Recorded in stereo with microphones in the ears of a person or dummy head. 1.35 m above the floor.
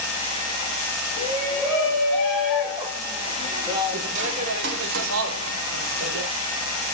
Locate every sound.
1.2 s a shout: 10° left (ahead or behind), 3.5 m; by 6.3 s 65° right (ahead or behind), 1.9 m